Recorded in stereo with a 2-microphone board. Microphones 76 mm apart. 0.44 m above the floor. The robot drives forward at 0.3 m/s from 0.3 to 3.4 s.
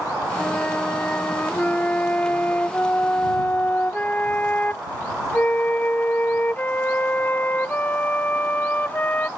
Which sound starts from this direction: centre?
A flute, at 0.4 s.